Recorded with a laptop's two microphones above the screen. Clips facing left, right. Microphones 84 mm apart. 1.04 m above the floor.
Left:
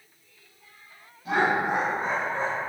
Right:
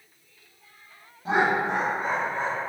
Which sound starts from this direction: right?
Laughter, at 1.2 s.